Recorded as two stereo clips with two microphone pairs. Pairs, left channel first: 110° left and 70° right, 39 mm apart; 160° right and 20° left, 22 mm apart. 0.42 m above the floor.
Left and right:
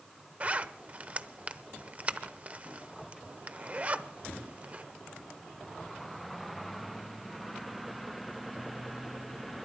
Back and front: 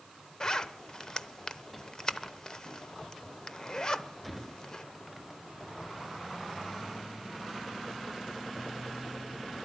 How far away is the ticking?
I don't hear ticking.